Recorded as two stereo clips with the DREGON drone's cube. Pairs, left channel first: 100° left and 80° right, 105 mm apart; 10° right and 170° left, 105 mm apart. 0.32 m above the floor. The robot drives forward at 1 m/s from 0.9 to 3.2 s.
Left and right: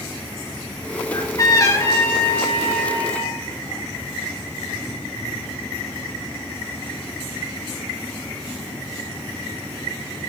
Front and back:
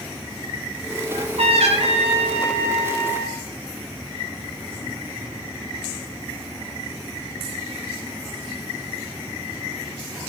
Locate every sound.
1.1 s a trumpet: 145° left, 0.6 m; by 3.4 s 170° left, 2.5 m